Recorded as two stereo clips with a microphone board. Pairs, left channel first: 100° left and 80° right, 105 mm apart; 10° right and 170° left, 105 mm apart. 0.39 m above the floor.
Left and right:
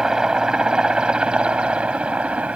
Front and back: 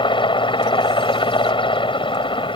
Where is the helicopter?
5° left; by 2.6 s 5° right.